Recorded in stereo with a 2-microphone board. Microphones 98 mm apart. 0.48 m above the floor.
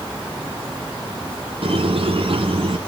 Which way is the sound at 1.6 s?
70° right (ahead or behind).